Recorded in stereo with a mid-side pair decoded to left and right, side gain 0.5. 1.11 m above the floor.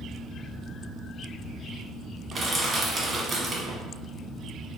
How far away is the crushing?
About 1.1 m.